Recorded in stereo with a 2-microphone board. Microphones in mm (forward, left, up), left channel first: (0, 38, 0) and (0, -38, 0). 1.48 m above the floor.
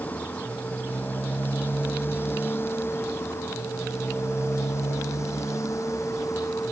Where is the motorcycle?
20° left (ahead or behind); by 6.7 s 45° left (ahead or behind).